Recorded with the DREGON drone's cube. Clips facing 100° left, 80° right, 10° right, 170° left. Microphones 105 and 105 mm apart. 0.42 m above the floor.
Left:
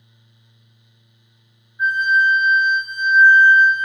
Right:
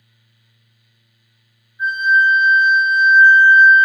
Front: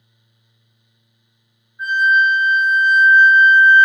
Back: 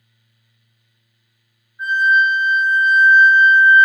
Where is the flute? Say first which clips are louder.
Right 2 dB, even; 80° left, 1.7 m.